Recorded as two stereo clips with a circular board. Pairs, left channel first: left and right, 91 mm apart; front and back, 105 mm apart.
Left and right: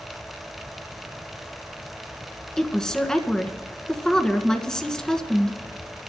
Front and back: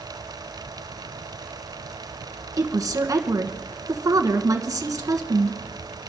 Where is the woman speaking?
170° left, 1.5 m.